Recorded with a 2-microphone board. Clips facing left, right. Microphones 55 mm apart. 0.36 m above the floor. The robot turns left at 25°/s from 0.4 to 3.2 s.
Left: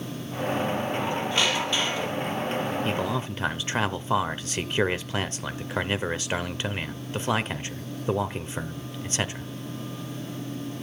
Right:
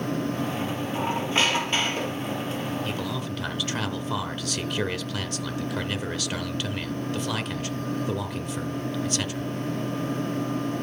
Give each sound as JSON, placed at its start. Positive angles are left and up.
{"t": 0.9, "sound": "a squeak", "azimuth_deg": -20, "distance_m": 3.5}
{"t": 2.9, "sound": "a man speaking", "side_deg": 25, "distance_m": 0.9}